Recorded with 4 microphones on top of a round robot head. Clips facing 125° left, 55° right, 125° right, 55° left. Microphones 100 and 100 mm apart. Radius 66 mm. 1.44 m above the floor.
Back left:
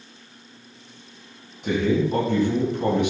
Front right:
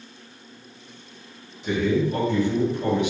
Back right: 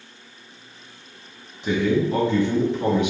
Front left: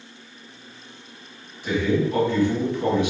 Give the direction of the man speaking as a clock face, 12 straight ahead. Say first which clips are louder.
Back left 1 dB, back right 1 dB; 6 o'clock.